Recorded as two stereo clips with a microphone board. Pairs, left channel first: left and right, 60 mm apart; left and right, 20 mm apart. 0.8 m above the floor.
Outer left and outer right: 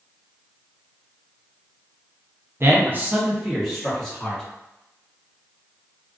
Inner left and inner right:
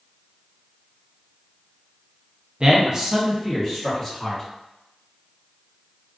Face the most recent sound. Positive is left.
turn(degrees=5)  # may be behind; listen again after turning